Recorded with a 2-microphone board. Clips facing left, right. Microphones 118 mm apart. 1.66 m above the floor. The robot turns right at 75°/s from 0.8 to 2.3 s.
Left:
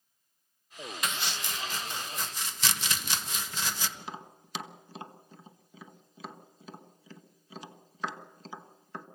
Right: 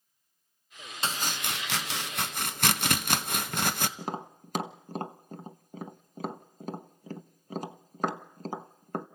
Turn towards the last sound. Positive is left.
turn(degrees=-45)  # may be behind; listen again after turning